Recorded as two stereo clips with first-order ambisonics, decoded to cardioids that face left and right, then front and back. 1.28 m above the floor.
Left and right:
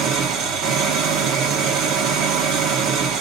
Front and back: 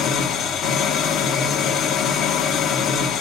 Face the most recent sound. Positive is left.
turn(degrees=-50)